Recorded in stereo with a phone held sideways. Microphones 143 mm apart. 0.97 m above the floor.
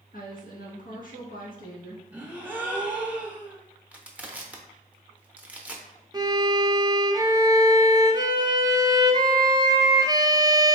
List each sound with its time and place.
0.1 s a woman speaking: 70° left (ahead or behind), 1.5 m
2.1 s a gasp: 10° right (ahead or behind), 0.7 m
3.9 s crushing: 10° right (ahead or behind), 0.6 m
6.1 s a violin: 25° right (ahead or behind), 0.5 m